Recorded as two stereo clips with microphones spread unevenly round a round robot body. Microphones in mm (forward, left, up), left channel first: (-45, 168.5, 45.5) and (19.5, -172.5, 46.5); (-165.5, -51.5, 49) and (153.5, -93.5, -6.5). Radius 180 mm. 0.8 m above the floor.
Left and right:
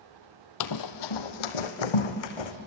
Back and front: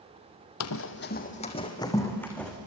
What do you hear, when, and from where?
0.6 s running footsteps: 135° left, 1.6 m; by 2.5 s 85° left, 3.5 m